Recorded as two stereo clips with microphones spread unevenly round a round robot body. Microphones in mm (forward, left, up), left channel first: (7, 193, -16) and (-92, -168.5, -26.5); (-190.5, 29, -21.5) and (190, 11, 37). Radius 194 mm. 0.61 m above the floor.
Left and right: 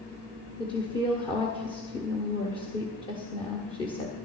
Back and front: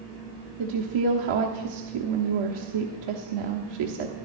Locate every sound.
0.6 s a woman speaking: 5° right, 1.1 m